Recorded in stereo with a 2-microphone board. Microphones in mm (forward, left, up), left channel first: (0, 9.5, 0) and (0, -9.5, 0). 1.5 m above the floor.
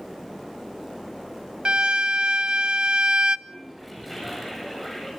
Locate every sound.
1.6 s a violin: 55° right (ahead or behind), 0.6 m
3.5 s a toilet flushing: centre (ahead or behind), 8.5 m